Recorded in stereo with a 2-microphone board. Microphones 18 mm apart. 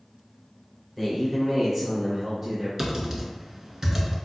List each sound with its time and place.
1.0 s a man speaking: 10° left (ahead or behind), 1.1 m; by 2.7 s 10° right (ahead or behind), 1.5 m
2.8 s typing on a keyboard: 20° right (ahead or behind), 0.8 m